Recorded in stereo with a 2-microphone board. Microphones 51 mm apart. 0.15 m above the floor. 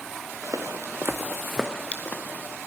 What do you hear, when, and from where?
0.4 s footsteps: 85° right, 1.4 m; by 2.6 s 40° left (ahead or behind), 2 m